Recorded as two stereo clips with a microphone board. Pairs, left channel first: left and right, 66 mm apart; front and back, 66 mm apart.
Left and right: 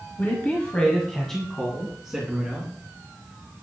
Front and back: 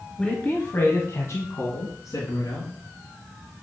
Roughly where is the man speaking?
Ahead left.